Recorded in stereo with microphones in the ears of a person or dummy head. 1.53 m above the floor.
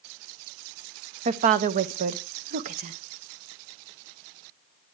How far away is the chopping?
No chopping in this recording.